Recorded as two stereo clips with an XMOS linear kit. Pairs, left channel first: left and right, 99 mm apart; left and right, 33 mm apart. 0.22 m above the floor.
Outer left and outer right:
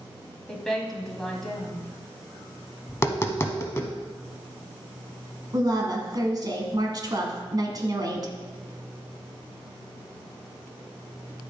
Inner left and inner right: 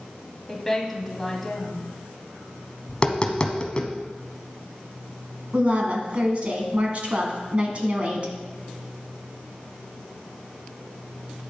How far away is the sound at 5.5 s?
About 1.6 m.